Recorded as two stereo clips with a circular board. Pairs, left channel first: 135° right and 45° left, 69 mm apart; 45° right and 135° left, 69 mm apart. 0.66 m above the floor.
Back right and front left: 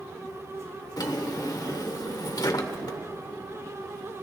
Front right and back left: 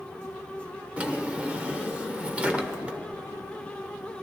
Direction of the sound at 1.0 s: 155° right.